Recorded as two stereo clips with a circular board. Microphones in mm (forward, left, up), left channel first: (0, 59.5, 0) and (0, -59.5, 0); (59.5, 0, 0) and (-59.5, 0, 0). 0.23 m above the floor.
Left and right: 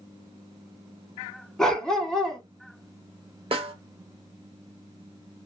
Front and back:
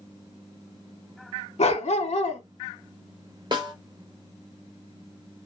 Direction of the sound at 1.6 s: 5° left.